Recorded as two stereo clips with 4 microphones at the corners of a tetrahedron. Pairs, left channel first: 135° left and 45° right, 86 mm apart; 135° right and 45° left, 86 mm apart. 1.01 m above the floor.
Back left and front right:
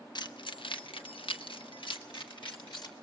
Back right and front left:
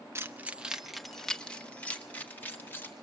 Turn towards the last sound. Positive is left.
turn(degrees=160)